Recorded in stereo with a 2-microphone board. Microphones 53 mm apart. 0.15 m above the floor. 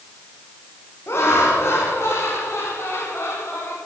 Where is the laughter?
55° left (ahead or behind), 8.5 m; by 3.8 s 50° left (ahead or behind), 7 m.